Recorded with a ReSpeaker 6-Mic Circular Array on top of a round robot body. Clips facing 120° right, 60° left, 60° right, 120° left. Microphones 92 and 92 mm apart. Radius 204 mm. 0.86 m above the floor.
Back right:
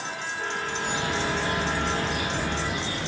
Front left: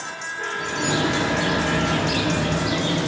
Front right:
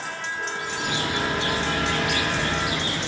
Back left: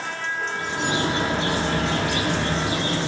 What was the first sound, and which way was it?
A bird, 60° left.